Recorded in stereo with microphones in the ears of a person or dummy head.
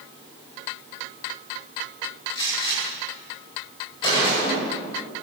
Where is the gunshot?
20° left (ahead or behind), 9 m.